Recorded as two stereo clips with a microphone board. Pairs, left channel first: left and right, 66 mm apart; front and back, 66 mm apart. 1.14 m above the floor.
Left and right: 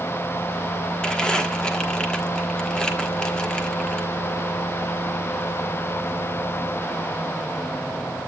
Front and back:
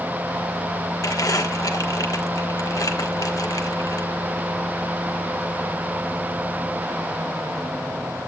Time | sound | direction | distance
1.0 | crumpling | 15° left | 1.2 m